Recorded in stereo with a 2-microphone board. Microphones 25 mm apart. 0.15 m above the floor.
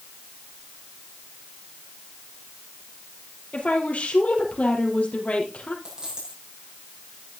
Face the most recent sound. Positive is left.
turn(degrees=-40)  # may be behind; listen again after turning